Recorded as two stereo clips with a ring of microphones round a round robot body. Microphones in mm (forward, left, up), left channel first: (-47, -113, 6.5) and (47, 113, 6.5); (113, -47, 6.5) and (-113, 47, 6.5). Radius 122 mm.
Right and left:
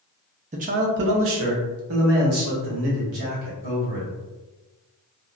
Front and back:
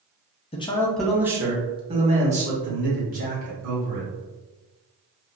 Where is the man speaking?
25° left, 0.5 m; by 4.1 s 105° left, 2.0 m.